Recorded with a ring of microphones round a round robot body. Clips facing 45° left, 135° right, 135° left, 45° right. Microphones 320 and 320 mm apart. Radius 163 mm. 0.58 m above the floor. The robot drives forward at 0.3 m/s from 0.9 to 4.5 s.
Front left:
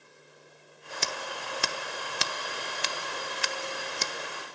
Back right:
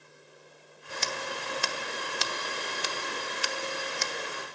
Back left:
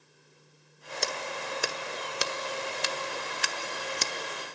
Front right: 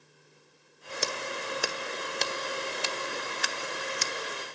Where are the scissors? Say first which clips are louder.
Back right 2 dB, even; 40° left, 1.2 m; by 4.1 s 95° left, 0.8 m.